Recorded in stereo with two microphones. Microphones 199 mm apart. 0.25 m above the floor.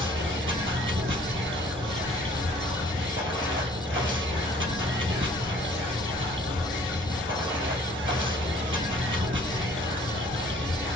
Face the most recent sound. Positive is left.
turn(degrees=-85)